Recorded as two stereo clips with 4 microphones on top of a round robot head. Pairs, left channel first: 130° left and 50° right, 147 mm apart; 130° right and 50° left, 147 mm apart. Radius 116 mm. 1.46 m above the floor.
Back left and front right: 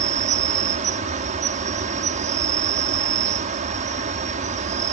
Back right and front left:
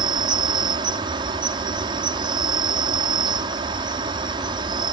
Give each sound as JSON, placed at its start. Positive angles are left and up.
{"t": 0.0, "sound": "an insect", "azimuth_deg": -10}